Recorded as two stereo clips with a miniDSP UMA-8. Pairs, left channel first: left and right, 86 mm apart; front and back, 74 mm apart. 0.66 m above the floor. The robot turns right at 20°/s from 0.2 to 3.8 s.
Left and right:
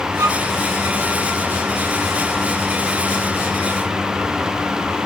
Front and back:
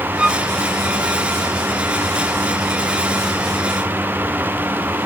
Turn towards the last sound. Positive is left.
turn(degrees=-45)